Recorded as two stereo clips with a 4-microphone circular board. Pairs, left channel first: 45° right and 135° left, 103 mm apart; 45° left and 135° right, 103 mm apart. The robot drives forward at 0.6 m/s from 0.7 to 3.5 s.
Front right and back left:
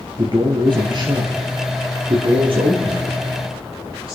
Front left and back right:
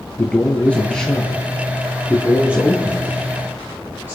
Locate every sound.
0.2 s a man speaking: 120° left, 1.6 m; by 4.2 s 155° left, 2.5 m